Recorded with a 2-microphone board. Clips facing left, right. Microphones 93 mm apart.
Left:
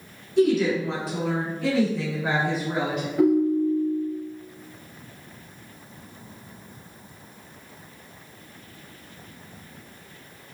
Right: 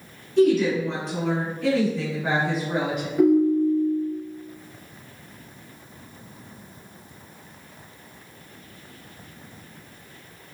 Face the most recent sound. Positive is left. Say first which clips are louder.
# right 2 dB
turn(degrees=0)  # may be behind; listen again after turning